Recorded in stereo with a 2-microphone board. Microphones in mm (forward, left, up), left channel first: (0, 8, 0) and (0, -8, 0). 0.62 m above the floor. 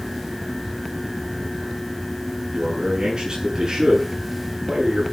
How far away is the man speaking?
About 8 m.